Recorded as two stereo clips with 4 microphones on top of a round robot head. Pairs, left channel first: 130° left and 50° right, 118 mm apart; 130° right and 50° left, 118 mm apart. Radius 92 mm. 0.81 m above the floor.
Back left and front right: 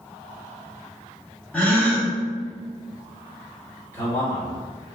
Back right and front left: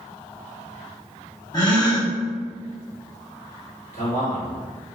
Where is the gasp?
155° right, 1.2 m.